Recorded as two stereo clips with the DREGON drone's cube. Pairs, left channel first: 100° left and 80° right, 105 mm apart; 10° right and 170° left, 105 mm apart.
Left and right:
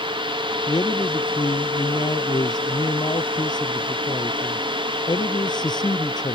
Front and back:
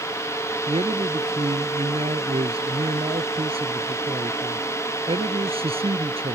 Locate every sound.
0.7 s a man speaking: 145° left